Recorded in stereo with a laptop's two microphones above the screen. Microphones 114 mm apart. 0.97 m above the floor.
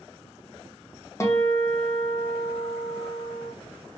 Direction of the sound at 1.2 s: 25° left (ahead or behind).